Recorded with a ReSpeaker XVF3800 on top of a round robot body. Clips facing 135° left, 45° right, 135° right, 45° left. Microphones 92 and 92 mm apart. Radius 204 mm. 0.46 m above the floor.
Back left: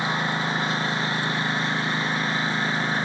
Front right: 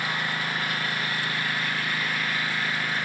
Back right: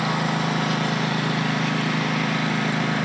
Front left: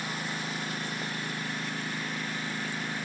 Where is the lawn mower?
155° right; by 3.1 s 160° right.